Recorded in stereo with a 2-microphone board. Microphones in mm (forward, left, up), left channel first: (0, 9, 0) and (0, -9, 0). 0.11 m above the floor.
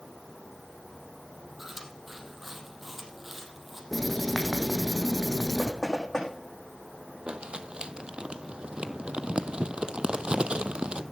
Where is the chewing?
20° right (ahead or behind), 4 m.